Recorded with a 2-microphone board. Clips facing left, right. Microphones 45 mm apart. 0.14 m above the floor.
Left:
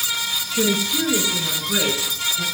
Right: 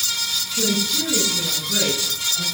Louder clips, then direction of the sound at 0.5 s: Left 3 dB; 45° left (ahead or behind).